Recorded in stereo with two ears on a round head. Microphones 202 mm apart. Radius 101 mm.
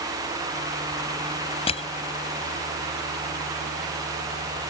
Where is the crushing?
25° left (ahead or behind).